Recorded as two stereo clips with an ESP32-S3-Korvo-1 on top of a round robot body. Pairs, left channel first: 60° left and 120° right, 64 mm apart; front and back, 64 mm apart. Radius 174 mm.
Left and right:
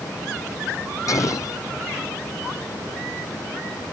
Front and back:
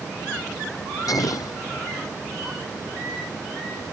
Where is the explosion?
25° left.